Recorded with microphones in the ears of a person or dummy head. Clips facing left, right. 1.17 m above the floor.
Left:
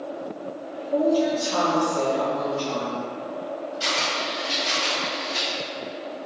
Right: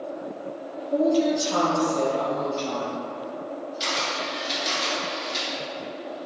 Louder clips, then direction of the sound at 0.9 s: Even; 15° right (ahead or behind).